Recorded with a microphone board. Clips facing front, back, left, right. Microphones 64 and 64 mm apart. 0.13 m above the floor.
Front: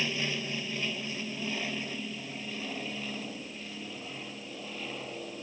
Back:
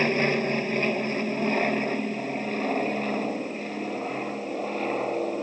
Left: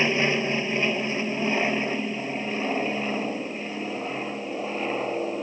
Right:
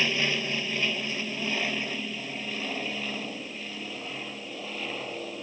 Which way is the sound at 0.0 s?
150° left.